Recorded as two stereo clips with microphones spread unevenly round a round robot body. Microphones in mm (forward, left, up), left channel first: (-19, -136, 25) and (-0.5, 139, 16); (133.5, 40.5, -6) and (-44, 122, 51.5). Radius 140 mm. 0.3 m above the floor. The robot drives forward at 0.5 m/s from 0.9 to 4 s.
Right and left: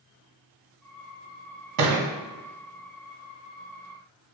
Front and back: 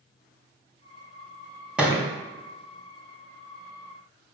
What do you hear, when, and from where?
1.8 s a thud: 65° left, 1.4 m; by 2.1 s 70° left, 1.3 m